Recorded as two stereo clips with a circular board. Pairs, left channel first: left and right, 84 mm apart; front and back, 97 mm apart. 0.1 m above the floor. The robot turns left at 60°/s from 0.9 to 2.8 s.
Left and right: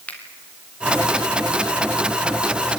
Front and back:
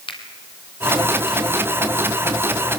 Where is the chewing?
No chewing in this recording.